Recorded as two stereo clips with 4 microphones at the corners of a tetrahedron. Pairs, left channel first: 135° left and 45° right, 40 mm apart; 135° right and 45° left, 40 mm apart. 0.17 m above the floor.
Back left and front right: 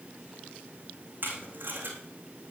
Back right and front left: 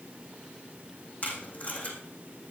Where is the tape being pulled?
80° right, 3 m.